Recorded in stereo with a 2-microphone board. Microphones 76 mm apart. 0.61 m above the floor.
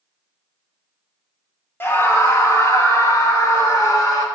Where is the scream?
30° left (ahead or behind), 1.0 m; by 4.2 s 55° left (ahead or behind), 2.5 m.